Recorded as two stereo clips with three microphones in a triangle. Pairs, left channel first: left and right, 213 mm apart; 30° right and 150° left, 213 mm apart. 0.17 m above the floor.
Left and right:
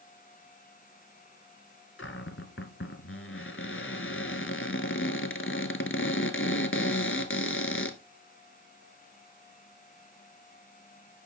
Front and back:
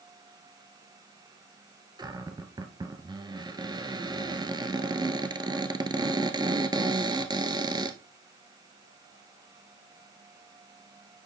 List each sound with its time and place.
2.0 s a cupboard door: 80° left, 0.9 m